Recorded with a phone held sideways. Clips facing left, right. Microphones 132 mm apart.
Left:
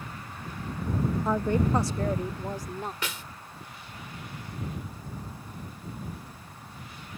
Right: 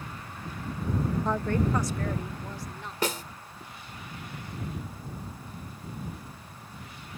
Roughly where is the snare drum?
Right.